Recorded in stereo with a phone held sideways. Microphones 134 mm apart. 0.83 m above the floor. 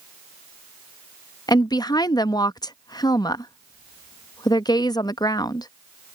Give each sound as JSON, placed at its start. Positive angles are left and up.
{"t": 1.5, "sound": "a woman speaking", "side_deg": 30}